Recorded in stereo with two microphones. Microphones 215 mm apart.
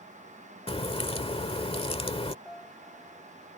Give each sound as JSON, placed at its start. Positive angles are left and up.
{"t": 0.7, "sound": "a crack", "side_deg": 25}
{"t": 2.5, "sound": "a piano", "side_deg": 0}